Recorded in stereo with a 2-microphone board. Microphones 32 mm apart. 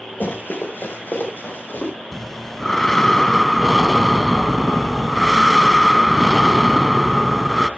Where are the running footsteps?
85° left, 4.5 m; by 1.9 s 80° left, 4.5 m.